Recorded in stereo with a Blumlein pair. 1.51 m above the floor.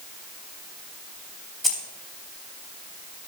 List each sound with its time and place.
1.6 s keys jangling: straight ahead, 3 m